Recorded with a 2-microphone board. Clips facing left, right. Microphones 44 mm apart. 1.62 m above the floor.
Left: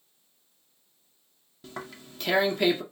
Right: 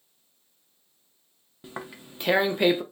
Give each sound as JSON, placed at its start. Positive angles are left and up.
{"t": 1.6, "sound": "tearing paper", "side_deg": -20, "distance_m": 0.6}